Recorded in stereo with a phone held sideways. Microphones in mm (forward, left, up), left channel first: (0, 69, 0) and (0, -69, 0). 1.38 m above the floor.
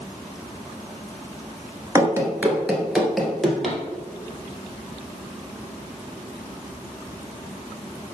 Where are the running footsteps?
20° right (ahead or behind), 1.4 m; by 3.8 s 5° left (ahead or behind), 2.5 m.